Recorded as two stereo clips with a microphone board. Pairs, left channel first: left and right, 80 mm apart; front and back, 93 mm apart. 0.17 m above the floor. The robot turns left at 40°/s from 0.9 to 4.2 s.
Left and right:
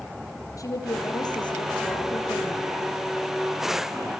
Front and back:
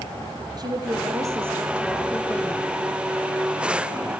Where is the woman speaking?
135° left, 4.5 m; by 2.8 s 60° left, 4.5 m.